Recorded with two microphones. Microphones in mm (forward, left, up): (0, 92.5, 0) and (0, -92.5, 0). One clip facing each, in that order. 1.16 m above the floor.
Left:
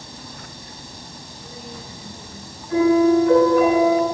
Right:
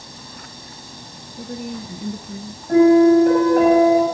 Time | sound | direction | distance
1.4 | a woman speaking | 60° right (ahead or behind) | 0.9 m
2.7 | a piano | 60° right (ahead or behind) | 8 m